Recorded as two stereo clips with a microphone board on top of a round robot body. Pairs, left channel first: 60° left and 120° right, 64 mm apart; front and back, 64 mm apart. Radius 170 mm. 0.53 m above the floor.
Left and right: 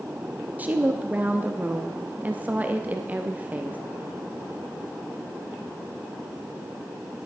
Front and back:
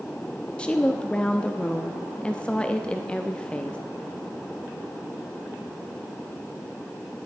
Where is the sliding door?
I don't hear a sliding door.